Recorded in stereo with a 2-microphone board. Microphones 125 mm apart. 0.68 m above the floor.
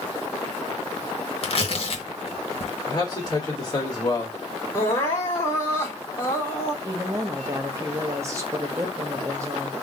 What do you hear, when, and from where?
1.4 s tearing paper: 50° left (ahead or behind), 0.8 m
2.9 s a man speaking: 35° left (ahead or behind), 1.9 m
4.7 s crying: 20° left (ahead or behind), 2 m
6.8 s a woman speaking: 25° right (ahead or behind), 1.0 m